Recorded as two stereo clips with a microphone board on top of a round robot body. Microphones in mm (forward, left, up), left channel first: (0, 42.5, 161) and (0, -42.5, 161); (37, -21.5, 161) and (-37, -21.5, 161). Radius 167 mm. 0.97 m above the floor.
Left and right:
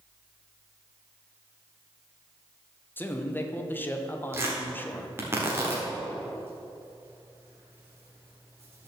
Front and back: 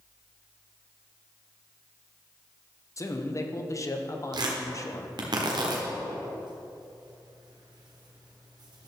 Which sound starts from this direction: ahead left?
A man speaking, at 3.0 s.